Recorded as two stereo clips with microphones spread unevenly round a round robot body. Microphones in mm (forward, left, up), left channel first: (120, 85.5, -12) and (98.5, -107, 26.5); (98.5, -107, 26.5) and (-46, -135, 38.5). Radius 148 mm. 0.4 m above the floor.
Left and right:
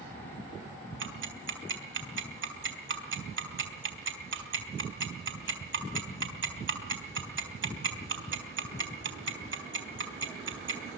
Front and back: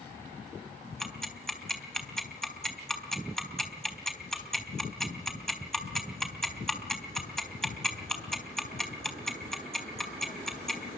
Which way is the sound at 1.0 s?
75° right.